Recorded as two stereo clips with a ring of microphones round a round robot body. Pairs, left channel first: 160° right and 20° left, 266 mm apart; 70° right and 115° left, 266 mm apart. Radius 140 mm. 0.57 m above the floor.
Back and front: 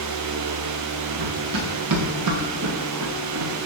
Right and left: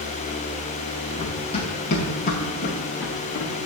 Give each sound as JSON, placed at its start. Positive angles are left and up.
{"t": 1.2, "sound": "running footsteps", "azimuth_deg": 5, "distance_m": 3.5}